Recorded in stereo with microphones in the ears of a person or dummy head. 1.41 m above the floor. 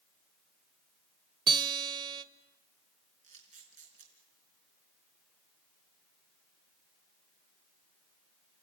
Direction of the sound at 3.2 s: 45° right (ahead or behind).